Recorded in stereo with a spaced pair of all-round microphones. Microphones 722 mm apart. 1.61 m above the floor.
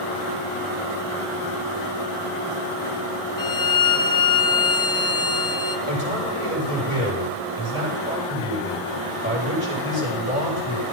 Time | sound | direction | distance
3.4 | a violin | 25° left (ahead or behind) | 1.0 m
5.9 | a man speaking | 40° left (ahead or behind) | 8 m